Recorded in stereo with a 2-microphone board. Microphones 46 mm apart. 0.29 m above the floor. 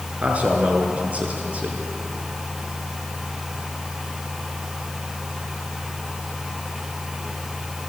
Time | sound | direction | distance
0.2 | a man speaking | 30° right (ahead or behind) | 4 m